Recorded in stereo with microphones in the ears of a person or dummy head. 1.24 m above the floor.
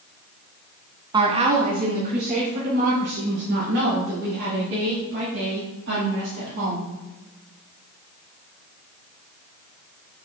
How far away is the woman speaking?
About 1.0 m.